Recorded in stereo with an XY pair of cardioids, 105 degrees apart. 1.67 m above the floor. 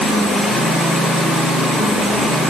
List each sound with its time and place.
Only background noise.